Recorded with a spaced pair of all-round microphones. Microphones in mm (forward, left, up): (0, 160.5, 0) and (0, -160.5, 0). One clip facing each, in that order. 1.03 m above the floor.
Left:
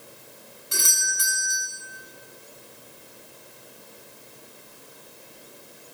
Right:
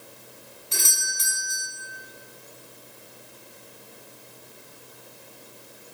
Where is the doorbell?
20° left (ahead or behind), 3.5 m.